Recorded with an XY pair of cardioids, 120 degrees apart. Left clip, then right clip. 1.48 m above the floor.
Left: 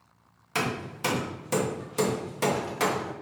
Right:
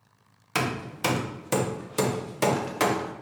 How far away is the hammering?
About 0.8 m.